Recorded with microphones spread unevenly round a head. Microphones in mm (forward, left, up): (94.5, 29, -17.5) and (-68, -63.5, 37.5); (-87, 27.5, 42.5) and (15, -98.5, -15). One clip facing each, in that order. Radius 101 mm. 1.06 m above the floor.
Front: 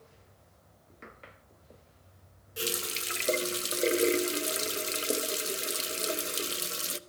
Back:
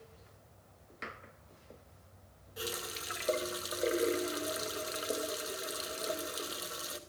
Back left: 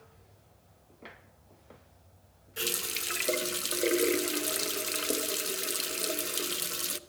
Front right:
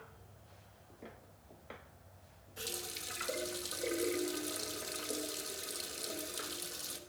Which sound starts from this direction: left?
A running tap, at 2.6 s.